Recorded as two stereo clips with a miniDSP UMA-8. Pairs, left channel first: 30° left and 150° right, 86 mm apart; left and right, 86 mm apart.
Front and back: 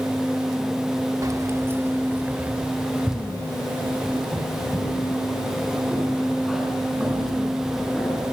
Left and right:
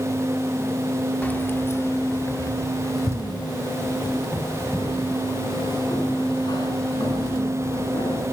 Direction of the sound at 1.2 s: 160° left.